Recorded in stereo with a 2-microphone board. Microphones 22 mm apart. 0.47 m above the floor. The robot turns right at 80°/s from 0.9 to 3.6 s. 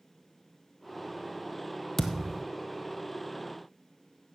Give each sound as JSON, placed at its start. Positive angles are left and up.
{"t": 2.0, "sound": "a thud", "azimuth_deg": 160, "distance_m": 1.4}